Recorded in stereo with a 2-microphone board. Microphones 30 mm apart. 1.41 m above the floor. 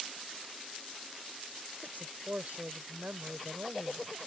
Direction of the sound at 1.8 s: 70° right (ahead or behind).